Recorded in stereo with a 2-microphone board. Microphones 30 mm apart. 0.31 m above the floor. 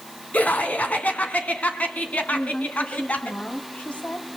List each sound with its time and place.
0.3 s laughter: 65° left (ahead or behind), 3.5 m
2.3 s a woman speaking: 55° left (ahead or behind), 2.5 m